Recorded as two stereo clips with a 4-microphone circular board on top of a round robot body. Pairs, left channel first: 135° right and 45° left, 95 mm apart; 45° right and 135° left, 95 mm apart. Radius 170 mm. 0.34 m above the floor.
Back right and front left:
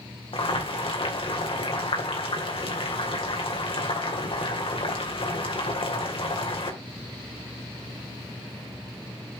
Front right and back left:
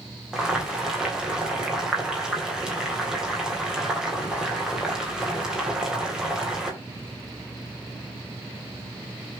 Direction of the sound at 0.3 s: 140° right.